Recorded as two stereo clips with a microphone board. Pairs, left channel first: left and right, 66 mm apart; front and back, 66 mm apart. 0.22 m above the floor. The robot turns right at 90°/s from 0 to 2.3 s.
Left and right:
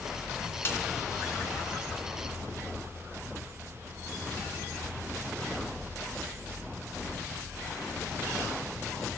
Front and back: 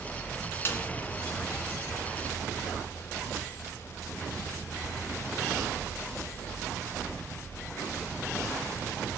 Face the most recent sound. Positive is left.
turn(degrees=-165)